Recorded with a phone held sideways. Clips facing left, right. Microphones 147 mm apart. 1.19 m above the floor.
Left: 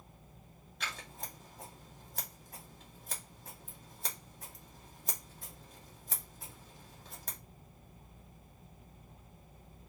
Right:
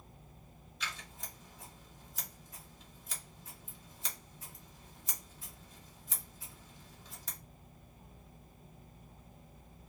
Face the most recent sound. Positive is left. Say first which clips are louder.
# left 2 dB
turn(degrees=65)  # may be behind; listen again after turning